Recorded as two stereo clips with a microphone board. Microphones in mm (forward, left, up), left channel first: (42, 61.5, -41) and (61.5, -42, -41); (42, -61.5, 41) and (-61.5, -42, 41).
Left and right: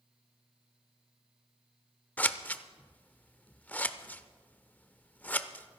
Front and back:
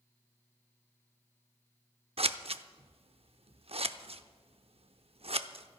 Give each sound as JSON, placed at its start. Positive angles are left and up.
{"t": 2.2, "sound": "scissors", "azimuth_deg": 175, "distance_m": 0.6}